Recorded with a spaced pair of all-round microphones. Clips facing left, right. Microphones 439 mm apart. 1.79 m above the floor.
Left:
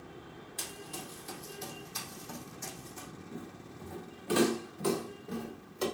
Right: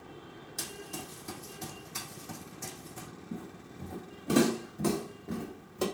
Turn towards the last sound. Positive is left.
turn(degrees=-65)  # may be behind; listen again after turning